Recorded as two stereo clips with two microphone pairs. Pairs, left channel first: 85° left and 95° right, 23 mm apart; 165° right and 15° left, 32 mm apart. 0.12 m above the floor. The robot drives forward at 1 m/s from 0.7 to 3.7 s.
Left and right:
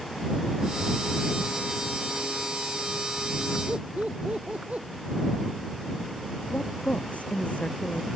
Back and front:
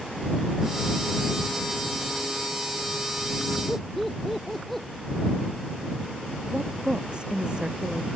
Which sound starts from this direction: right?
Laughter, at 3.7 s.